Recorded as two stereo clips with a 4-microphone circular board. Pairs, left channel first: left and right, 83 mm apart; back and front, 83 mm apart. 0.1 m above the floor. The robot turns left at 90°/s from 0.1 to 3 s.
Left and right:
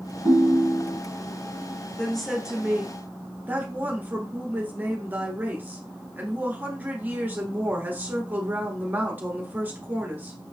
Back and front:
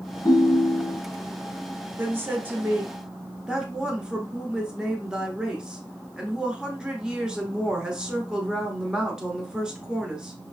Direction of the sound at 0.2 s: 145° right.